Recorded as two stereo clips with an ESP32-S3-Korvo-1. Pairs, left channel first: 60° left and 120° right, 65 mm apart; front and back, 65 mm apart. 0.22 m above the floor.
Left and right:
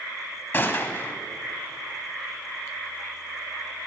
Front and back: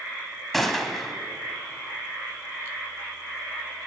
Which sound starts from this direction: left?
A gunshot, at 0.5 s.